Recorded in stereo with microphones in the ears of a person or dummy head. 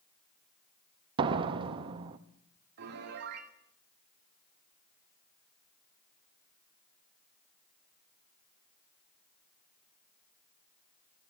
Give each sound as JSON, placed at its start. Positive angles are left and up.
{"t": 1.2, "sound": "a door slam", "side_deg": -25, "distance_m": 0.8}
{"t": 2.8, "sound": "a piano", "side_deg": -55, "distance_m": 2.5}